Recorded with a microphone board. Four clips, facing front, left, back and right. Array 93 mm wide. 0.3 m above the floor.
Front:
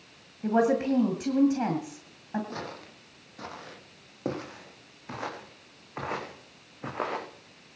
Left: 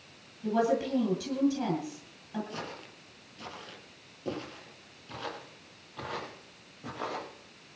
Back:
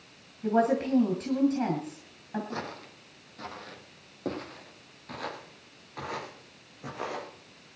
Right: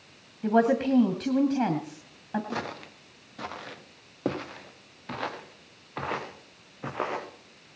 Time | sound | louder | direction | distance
0.4 | a woman speaking | right 5 dB, front 1 dB | 75° right | 2 m
2.5 | footsteps | right 6 dB, back 1 dB | 90° right | 4.5 m